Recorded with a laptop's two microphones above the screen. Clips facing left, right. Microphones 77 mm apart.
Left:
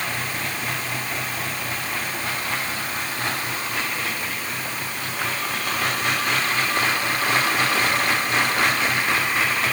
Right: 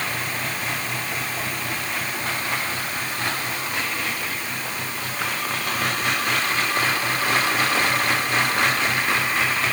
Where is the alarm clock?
No alarm clock in this recording.